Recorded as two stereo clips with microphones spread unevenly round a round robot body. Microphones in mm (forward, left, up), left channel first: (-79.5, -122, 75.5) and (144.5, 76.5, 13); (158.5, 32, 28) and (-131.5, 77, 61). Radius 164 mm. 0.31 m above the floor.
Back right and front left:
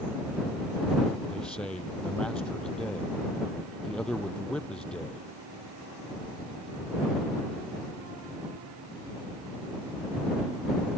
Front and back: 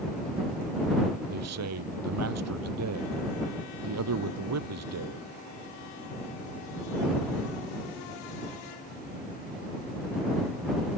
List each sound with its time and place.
1.3 s a man speaking: 135° left